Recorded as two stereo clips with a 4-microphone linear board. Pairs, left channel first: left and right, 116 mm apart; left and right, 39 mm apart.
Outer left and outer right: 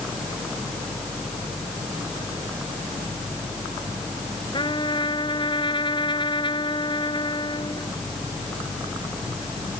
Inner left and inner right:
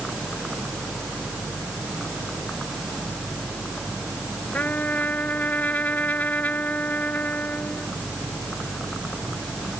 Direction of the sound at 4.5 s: 40° left (ahead or behind).